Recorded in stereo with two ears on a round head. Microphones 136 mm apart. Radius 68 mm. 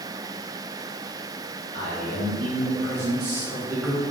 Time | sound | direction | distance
1.7 | a man speaking | 60° right (ahead or behind) | 1.8 m